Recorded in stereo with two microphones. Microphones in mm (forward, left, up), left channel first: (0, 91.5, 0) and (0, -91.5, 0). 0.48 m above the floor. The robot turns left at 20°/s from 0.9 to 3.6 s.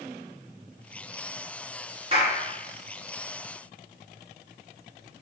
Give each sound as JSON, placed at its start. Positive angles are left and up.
{"t": 2.1, "sound": "a clap", "side_deg": -35, "distance_m": 5.0}